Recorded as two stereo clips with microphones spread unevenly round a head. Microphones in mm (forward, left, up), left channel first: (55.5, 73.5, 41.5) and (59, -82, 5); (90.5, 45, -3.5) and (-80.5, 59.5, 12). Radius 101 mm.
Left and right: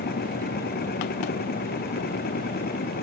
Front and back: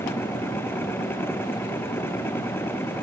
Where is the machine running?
75° left.